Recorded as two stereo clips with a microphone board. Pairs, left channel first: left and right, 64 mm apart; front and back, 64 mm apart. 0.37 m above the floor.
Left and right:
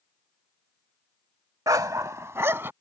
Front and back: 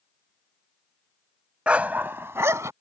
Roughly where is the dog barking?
Right.